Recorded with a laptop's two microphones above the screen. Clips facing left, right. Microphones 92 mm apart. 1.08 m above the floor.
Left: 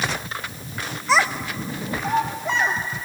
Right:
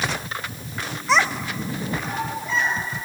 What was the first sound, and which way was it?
A child speaking, centre (ahead or behind).